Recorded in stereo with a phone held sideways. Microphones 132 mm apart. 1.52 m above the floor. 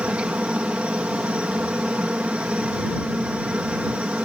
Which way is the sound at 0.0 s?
10° right (ahead or behind).